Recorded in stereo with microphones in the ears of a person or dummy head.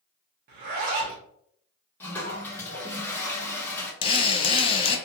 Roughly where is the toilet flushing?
Centre.